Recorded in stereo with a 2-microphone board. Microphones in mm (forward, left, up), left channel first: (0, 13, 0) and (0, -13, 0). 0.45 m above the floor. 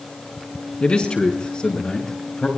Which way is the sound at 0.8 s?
55° left (ahead or behind).